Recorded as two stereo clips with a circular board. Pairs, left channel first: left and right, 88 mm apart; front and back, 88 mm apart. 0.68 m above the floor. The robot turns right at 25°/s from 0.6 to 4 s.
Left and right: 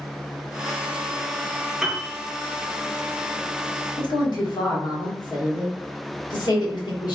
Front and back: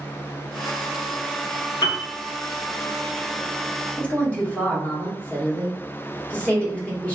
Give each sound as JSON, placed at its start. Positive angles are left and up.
{"t": 1.8, "sound": "a piano", "azimuth_deg": -5, "distance_m": 1.5}
{"t": 4.0, "sound": "a woman speaking", "azimuth_deg": 70, "distance_m": 1.3}